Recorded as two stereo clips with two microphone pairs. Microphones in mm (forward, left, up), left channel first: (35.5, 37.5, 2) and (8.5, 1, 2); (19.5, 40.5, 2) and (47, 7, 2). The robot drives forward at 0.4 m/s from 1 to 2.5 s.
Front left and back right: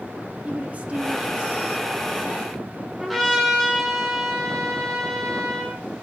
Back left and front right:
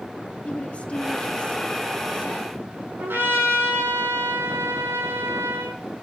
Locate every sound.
0.5 s a woman speaking: straight behind, 1.8 m
3.0 s a trumpet: 35° right, 9.5 m